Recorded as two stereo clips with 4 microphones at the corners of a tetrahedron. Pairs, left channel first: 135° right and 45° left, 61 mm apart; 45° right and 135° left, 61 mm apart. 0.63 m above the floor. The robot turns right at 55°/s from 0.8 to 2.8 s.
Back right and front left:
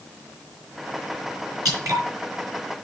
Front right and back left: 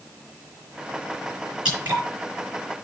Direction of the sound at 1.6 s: 65° left.